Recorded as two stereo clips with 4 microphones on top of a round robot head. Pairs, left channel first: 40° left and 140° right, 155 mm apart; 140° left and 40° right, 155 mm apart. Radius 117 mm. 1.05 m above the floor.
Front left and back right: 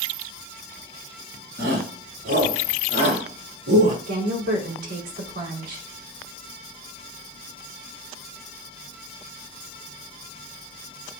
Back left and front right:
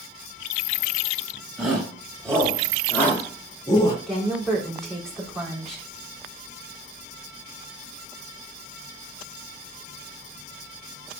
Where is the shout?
130° right, 5.5 m; by 4.0 s 155° right, 3 m.